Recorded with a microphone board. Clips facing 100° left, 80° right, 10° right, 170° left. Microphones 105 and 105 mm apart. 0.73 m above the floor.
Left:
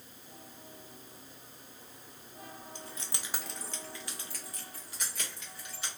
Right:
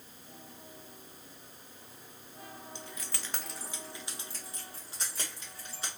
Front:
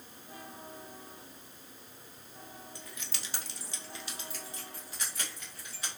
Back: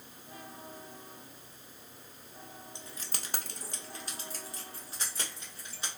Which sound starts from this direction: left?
Keys jangling, at 2.8 s.